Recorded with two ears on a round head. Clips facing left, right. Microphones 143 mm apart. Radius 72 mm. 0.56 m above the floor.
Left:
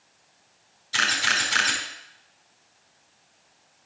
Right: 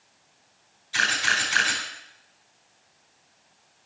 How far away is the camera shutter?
About 5 m.